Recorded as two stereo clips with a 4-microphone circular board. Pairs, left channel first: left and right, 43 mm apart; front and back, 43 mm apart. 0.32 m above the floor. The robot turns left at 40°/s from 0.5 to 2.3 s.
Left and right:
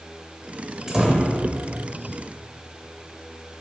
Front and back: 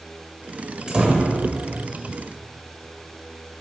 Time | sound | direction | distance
0.9 | a door slam | 140° right | 1.0 m